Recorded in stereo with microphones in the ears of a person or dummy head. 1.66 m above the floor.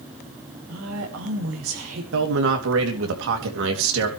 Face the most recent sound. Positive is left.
turn(degrees=-70)  # may be behind; listen again after turning